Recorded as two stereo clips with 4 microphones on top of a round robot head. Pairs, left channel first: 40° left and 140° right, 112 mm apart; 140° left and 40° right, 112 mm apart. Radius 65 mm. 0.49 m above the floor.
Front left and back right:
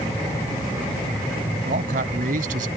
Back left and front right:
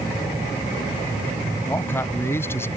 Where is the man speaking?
145° right; by 2.7 s 150° right.